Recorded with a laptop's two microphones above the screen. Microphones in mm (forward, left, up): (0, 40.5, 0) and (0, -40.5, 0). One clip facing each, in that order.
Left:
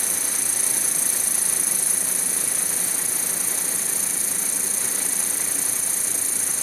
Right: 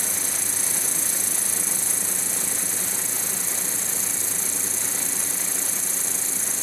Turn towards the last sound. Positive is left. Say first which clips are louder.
# even
turn(degrees=5)  # may be behind; listen again after turning